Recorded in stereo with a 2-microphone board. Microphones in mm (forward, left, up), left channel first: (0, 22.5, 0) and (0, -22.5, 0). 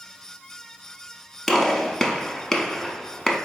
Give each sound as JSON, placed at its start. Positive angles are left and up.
{"t": 1.5, "sound": "a gunshot", "side_deg": 5, "distance_m": 0.5}